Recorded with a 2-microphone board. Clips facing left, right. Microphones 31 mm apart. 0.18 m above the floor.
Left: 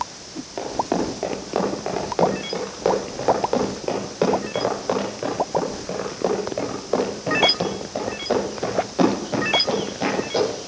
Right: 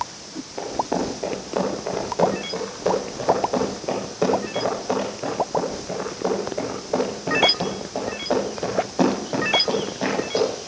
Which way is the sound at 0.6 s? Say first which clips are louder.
Left 1 dB; 45° left (ahead or behind).